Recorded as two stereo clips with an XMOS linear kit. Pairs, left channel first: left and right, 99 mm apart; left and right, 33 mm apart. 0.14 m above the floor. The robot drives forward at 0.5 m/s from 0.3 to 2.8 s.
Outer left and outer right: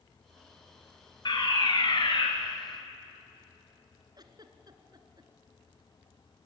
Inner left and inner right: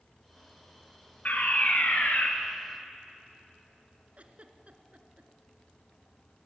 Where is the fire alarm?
50° left (ahead or behind), 3.5 m.